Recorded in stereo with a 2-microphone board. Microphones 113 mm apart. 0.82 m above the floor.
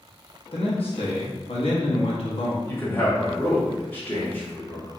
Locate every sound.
0.5 s a man speaking: 65° left (ahead or behind), 0.8 m
2.7 s a man speaking: 20° left (ahead or behind), 1.1 m